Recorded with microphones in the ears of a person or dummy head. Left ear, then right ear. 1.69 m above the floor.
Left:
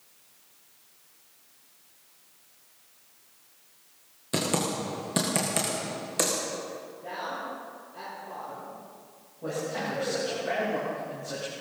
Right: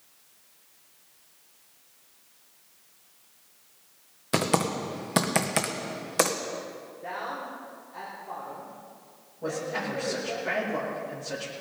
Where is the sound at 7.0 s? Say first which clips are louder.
Right 1 dB; 60° right (ahead or behind), 5.5 m.